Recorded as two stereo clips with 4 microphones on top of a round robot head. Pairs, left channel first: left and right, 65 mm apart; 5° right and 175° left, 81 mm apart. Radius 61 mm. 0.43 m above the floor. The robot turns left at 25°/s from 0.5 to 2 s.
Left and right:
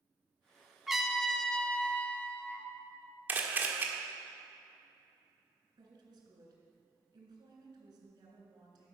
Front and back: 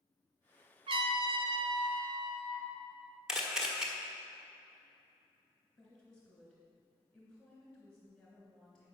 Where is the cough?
No cough in this recording.